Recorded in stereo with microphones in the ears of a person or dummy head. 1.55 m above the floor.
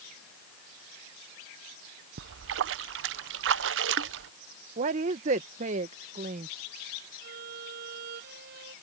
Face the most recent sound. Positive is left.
turn(degrees=-60)  # may be behind; listen again after turning